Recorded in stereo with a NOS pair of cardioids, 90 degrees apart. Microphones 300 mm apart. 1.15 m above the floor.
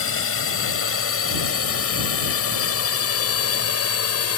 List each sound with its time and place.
0.0 s a drone: 45° left; by 4.4 s 55° left